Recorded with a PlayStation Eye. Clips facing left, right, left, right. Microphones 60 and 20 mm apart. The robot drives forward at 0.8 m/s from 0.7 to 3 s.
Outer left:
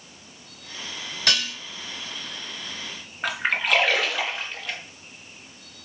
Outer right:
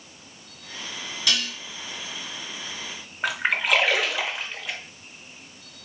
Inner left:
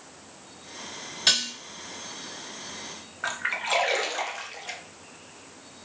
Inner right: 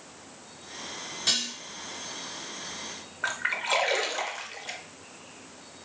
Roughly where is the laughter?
No laughter in this recording.